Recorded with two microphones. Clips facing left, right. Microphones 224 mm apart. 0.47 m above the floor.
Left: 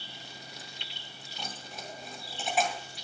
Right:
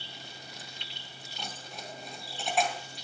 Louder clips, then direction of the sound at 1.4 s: Even; centre (ahead or behind).